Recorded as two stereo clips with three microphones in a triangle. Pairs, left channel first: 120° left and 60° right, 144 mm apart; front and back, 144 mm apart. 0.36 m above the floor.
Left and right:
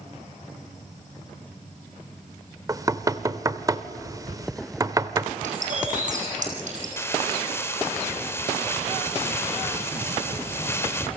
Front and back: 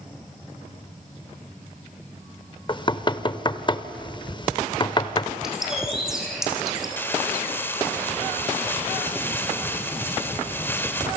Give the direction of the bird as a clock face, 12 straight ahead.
3 o'clock.